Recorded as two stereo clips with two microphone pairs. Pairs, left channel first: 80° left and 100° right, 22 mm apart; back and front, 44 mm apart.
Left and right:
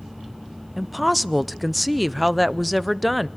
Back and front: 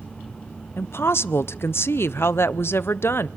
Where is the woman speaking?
175° left, 0.6 m.